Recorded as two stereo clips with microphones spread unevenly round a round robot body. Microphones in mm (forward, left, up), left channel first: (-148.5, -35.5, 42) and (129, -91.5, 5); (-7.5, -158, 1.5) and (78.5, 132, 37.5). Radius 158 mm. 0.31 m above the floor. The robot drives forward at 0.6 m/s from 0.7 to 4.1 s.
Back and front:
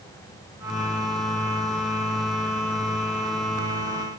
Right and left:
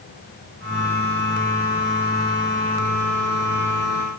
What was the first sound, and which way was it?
Only background noise.